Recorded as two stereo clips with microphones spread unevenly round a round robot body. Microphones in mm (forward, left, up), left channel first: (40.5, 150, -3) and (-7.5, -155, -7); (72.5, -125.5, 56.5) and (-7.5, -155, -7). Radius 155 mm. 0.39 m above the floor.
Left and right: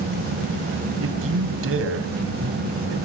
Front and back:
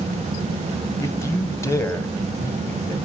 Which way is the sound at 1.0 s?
55° right.